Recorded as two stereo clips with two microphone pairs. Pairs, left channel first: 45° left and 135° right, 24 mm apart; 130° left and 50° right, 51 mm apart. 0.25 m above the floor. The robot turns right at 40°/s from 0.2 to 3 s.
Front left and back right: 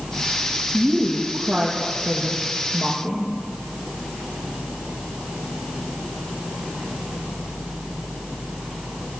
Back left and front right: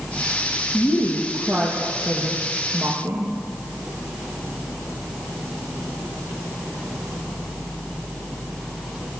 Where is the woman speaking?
Straight behind, 5.5 m; by 3.4 s 90° right, 5.5 m.